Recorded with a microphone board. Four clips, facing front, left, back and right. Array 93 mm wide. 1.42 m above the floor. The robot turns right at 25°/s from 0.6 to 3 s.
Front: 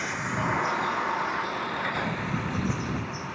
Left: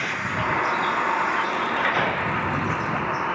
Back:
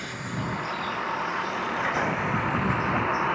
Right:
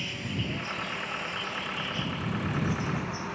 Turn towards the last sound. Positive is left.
turn(degrees=135)